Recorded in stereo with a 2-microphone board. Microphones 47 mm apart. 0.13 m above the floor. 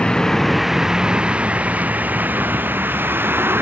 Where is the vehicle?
20° left (ahead or behind); by 3.6 s 50° right (ahead or behind).